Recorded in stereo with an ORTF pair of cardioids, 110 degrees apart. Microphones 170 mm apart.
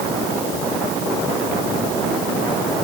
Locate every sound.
Only background noise.